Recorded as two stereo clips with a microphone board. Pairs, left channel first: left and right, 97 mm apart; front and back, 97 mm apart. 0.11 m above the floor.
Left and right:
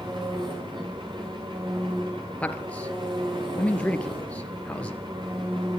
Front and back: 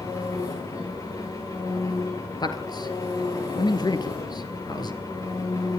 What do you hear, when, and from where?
0.0 s an engine running: 55° right, 6.5 m
2.4 s a man speaking: 20° left, 2.5 m